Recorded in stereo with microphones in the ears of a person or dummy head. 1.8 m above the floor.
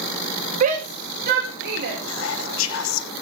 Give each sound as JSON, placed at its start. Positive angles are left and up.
{"t": 0.6, "sound": "a shout", "side_deg": -35, "distance_m": 1.3}
{"t": 2.1, "sound": "whispering", "side_deg": 70, "distance_m": 1.1}